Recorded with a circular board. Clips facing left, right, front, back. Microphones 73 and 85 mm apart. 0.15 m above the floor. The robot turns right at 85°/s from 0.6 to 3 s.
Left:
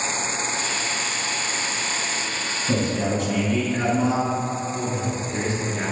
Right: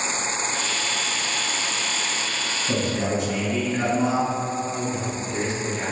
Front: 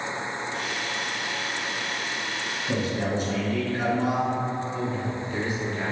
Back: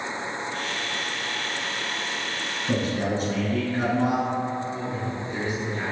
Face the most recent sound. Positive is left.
turn(degrees=120)